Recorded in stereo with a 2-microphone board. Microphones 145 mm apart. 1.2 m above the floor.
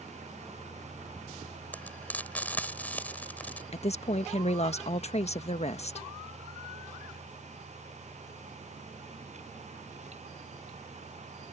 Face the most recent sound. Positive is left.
turn(degrees=50)  # may be behind; listen again after turning